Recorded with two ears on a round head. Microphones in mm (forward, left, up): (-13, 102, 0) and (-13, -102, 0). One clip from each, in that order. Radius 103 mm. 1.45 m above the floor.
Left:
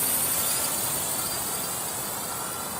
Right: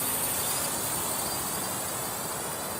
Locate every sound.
0.0 s a drone: 20° left (ahead or behind); by 2.8 s 10° left (ahead or behind)